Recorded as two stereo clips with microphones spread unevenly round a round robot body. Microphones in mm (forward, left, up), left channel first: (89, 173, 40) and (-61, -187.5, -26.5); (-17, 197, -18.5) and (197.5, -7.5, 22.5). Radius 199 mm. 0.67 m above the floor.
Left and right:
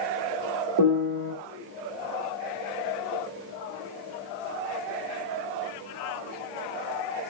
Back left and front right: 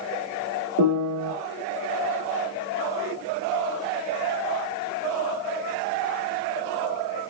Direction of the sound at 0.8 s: 80° right.